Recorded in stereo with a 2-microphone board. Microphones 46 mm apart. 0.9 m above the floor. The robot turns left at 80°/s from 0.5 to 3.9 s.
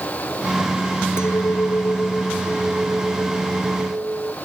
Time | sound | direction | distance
1.2 | a clink | 110° left | ?